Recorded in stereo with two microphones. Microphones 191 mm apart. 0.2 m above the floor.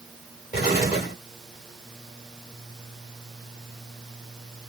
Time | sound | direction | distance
0.5 | an explosion | 40° left (ahead or behind) | 1.6 m